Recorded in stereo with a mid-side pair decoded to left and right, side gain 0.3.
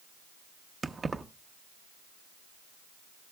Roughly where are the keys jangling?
Ahead right.